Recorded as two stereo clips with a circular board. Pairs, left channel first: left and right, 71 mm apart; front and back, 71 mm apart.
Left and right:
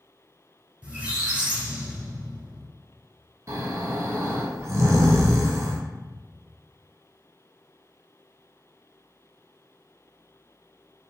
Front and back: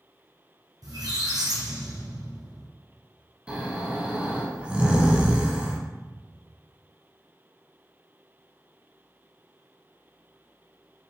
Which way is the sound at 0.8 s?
165° right.